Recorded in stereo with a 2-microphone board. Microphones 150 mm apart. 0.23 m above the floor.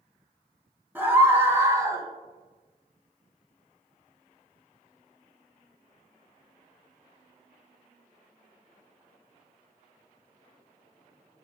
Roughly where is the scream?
Centre.